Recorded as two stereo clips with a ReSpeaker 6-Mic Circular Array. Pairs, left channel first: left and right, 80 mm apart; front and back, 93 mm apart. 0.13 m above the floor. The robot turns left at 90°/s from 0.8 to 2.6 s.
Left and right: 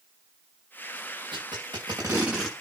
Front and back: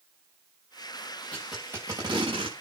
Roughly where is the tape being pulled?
Right.